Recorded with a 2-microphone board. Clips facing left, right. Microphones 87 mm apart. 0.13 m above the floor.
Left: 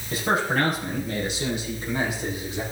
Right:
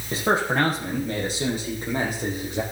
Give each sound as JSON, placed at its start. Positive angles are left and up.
{"t": 0.1, "sound": "a man speaking", "side_deg": -25, "distance_m": 5.5}